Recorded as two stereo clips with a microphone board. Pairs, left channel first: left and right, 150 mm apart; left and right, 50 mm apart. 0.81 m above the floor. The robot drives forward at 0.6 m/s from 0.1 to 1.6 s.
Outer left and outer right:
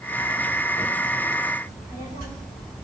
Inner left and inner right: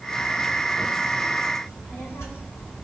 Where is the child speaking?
85° left, 2 m.